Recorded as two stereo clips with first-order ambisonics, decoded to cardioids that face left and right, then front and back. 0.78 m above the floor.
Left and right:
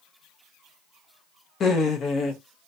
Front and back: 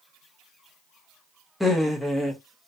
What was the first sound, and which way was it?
Laughter, 85° left.